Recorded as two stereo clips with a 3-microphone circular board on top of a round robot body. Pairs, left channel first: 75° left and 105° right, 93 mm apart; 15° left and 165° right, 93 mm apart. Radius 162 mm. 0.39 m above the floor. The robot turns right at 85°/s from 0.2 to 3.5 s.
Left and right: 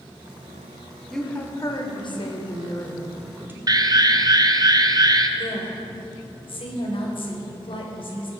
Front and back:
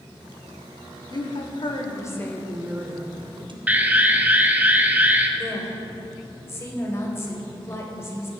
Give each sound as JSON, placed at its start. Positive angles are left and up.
{"t": 1.1, "sound": "a woman speaking", "azimuth_deg": -15, "distance_m": 2.5}
{"t": 3.7, "sound": "an alarm", "azimuth_deg": -100, "distance_m": 1.3}
{"t": 5.4, "sound": "a woman speaking", "azimuth_deg": 75, "distance_m": 3.0}